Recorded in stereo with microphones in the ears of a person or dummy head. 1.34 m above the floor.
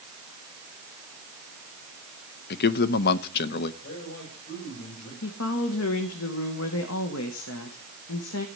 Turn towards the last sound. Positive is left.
turn(degrees=75)  # may be behind; listen again after turning